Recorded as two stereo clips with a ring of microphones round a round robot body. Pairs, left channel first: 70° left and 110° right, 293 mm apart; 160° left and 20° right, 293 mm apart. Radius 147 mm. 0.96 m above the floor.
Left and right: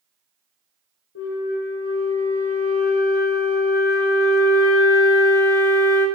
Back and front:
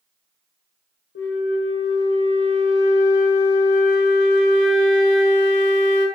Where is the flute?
110° left, 1.3 m.